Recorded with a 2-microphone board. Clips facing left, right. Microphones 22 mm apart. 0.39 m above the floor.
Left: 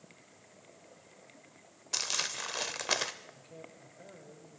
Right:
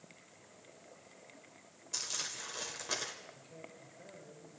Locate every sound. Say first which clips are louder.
1.9 s crumpling: left 6 dB; 40° left (ahead or behind), 0.9 m
3.3 s a man speaking: left 1 dB; 20° left (ahead or behind), 6.5 m